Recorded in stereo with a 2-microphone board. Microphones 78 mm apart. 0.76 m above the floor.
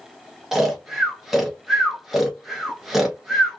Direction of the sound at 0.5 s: 5° right (ahead or behind).